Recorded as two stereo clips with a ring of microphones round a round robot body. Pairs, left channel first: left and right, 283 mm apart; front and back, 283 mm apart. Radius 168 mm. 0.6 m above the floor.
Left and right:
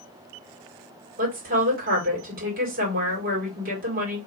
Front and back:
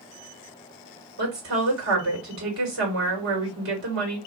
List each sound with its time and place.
1.2 s a woman speaking: 145° right, 2 m